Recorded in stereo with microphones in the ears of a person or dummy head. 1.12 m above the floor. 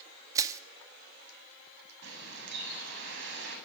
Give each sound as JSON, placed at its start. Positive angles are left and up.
{"t": 0.3, "sound": "crushing", "side_deg": -15, "distance_m": 1.9}
{"t": 2.0, "sound": "a bird", "side_deg": -75, "distance_m": 9.0}